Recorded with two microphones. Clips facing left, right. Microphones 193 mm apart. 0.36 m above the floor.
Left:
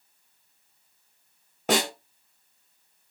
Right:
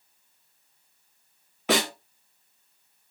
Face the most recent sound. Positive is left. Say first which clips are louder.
# even
turn(degrees=45)  # may be behind; listen again after turning